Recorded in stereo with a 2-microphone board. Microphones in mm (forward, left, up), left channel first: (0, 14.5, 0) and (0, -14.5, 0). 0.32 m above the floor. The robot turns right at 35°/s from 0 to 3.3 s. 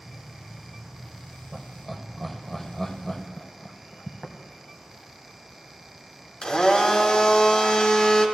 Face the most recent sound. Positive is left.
turn(degrees=30)  # may be behind; listen again after turning